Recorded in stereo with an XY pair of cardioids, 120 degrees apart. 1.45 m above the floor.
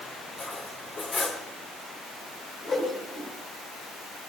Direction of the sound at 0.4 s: 40° left.